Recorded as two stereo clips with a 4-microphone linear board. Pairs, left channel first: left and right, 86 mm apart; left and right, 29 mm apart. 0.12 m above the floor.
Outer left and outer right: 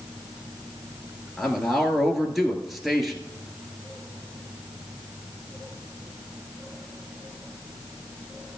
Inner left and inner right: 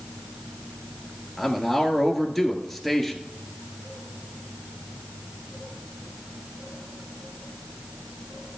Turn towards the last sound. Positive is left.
turn(degrees=0)  # may be behind; listen again after turning